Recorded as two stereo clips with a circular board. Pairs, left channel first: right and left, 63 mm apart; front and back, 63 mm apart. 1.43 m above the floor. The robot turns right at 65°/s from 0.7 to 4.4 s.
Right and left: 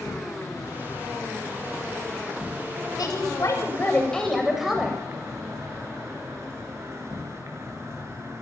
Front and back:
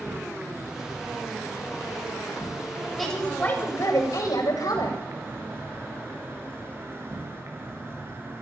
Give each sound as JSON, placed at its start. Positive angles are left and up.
{"t": 0.0, "sound": "an insect", "azimuth_deg": -105, "distance_m": 8.5}
{"t": 3.0, "sound": "a woman speaking", "azimuth_deg": -90, "distance_m": 8.5}